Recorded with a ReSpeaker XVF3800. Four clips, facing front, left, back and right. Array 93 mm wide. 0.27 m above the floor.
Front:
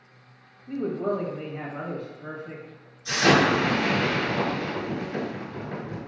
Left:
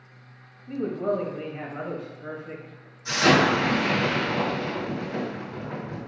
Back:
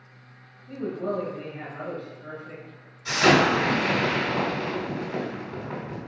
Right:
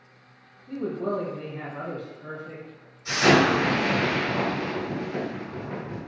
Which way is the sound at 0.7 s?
60° left.